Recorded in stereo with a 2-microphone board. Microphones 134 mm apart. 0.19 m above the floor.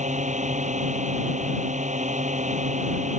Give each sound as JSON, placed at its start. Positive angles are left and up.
{"t": 0.0, "sound": "a drone", "side_deg": -60}